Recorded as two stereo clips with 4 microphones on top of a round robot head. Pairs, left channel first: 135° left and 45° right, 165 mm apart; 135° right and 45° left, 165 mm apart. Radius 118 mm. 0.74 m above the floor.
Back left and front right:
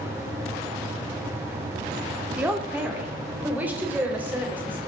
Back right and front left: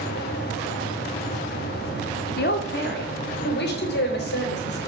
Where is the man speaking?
125° right, 2.5 m.